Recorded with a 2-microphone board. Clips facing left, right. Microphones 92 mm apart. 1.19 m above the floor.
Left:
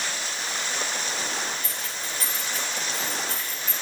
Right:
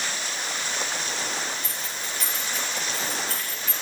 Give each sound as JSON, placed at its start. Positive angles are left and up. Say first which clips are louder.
{"t": 1.6, "sound": "keys jangling", "louder": "even", "side_deg": 45, "distance_m": 5.0}